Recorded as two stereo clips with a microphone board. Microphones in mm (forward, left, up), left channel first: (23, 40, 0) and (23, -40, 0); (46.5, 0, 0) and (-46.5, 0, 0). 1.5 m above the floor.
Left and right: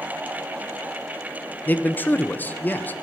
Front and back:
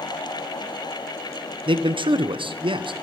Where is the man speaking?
155° left, 0.6 m.